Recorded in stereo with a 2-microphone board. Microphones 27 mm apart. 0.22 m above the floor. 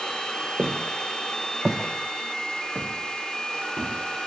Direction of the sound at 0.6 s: 70° right (ahead or behind).